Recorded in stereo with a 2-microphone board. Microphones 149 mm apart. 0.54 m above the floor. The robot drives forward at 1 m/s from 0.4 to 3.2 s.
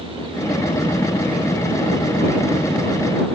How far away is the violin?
No violin in this recording.